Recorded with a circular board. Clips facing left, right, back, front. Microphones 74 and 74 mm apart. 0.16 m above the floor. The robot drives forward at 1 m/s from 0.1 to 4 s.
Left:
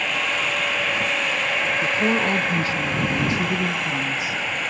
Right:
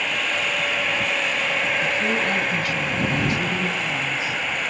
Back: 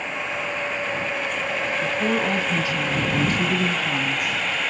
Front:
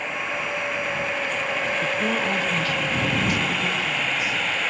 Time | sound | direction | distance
1.8 | a woman speaking | 70° left | 1.6 m